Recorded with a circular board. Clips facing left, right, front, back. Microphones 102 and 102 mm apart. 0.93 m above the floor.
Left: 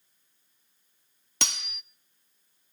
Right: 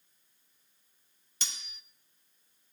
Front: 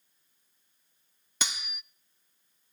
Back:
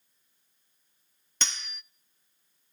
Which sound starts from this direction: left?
Cutlery clinking, at 1.4 s.